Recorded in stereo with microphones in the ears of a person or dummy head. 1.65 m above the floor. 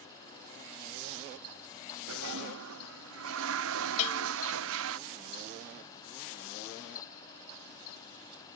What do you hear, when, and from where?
2.1 s a toilet flushing: 80° right
4.0 s a bell: 40° left (ahead or behind)